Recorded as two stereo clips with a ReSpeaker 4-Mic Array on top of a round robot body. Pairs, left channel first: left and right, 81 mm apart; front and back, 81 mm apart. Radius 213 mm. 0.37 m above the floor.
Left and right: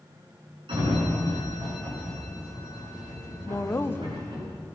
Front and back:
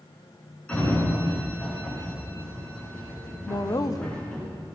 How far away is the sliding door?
About 8.5 m.